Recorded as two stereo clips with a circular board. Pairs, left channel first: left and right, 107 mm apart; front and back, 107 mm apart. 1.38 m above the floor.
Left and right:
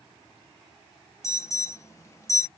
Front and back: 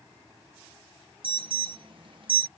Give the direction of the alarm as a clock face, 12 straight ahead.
7 o'clock.